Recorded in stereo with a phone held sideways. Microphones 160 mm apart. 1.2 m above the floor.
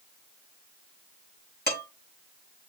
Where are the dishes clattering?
65° left (ahead or behind), 5 m.